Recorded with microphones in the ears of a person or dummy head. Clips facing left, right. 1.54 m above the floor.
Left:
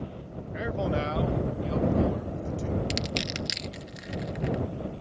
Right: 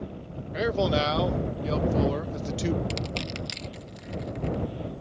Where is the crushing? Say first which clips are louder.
Left 1 dB; 25° left (ahead or behind).